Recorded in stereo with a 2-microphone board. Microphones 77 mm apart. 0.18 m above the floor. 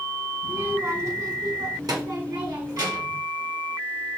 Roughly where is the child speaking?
Right.